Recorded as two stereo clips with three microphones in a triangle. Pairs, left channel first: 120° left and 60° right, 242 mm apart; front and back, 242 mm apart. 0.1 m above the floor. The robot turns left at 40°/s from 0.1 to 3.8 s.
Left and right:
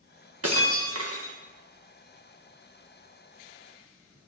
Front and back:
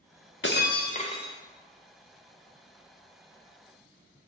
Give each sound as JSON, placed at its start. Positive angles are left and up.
{"t": 0.4, "sound": "breaking glass", "azimuth_deg": -40, "distance_m": 1.0}